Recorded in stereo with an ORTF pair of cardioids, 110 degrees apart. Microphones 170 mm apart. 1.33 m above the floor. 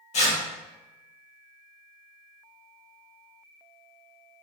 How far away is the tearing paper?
About 1.5 m.